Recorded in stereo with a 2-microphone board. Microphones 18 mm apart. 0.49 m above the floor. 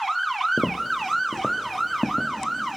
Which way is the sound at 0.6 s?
5° left (ahead or behind).